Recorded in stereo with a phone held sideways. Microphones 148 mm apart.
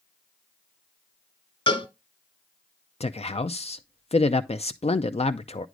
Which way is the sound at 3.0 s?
45° left (ahead or behind).